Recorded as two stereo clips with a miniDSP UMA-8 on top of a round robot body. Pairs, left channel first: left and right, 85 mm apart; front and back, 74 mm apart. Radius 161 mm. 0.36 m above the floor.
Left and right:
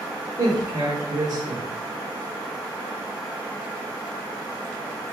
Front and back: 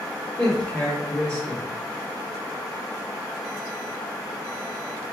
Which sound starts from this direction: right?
A man speaking, at 0.4 s.